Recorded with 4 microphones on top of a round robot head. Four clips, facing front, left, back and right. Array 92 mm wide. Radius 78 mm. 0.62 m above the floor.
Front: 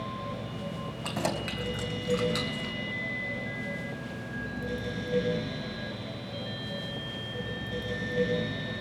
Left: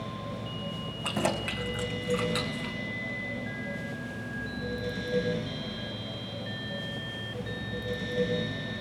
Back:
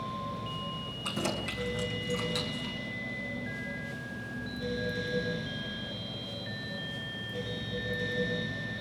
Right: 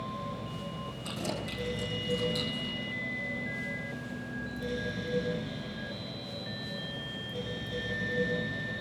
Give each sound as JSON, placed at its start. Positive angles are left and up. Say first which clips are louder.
{"t": 1.0, "sound": "keys jangling", "louder": "left 8 dB, front 2 dB", "azimuth_deg": 55, "distance_m": 4.0}